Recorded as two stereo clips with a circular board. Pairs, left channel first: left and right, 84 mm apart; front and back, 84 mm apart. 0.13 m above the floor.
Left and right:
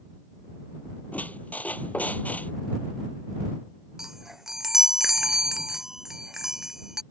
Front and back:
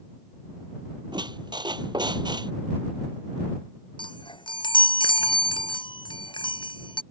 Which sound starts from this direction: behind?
A squeak, at 1.1 s.